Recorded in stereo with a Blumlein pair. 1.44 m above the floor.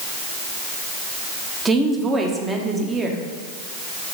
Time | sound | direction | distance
1.6 | a woman speaking | 15° right | 1.1 m